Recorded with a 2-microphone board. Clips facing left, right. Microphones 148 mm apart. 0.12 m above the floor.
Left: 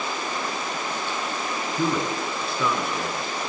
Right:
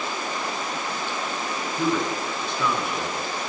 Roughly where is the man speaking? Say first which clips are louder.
Right 1 dB; centre.